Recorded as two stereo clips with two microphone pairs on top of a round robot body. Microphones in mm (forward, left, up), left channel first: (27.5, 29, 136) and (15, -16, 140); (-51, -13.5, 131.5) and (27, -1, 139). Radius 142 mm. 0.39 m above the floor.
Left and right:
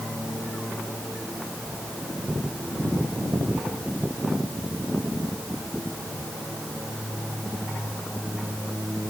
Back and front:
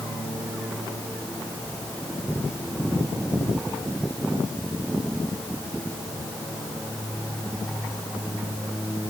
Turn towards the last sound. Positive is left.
No sound to turn to.